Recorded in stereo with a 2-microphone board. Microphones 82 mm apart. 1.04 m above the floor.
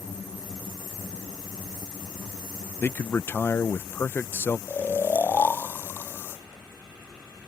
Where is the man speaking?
25° left (ahead or behind).